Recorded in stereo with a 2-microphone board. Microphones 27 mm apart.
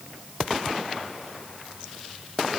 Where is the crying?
No crying in this recording.